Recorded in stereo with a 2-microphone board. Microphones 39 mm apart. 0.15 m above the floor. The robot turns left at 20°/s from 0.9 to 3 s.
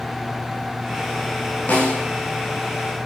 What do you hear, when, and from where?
1.7 s a snare drum: 40° left (ahead or behind), 9 m; by 2.0 s 35° left (ahead or behind), 9 m